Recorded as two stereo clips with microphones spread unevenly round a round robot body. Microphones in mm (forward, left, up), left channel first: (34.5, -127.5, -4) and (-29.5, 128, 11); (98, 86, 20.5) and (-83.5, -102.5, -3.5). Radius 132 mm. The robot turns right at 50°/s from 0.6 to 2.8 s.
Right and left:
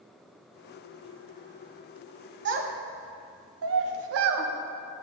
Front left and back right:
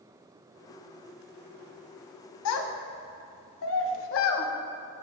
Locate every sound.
2.5 s a child speaking: 60° left, 0.7 m; by 4.5 s 80° left, 0.7 m